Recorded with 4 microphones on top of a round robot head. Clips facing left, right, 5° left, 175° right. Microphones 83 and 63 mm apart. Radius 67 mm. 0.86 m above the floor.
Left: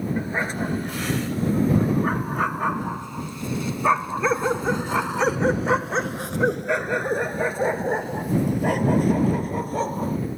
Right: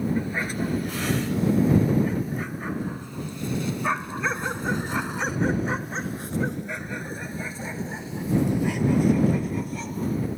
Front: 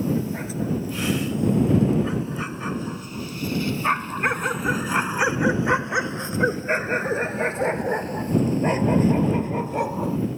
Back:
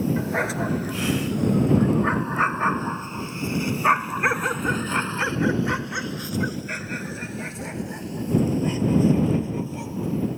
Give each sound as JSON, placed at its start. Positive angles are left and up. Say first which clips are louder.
{"t": 0.2, "sound": "a dog barking", "louder": "left 1 dB, back 3 dB", "azimuth_deg": 165}